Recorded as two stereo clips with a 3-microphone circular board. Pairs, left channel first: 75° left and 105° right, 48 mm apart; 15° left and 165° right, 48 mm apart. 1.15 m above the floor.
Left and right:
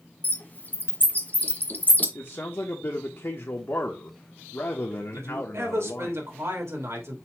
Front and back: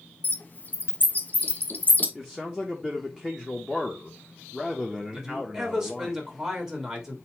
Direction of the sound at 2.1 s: 100° left.